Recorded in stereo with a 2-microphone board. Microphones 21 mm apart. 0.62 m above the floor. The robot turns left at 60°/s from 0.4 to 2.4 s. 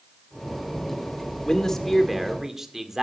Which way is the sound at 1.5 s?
40° left.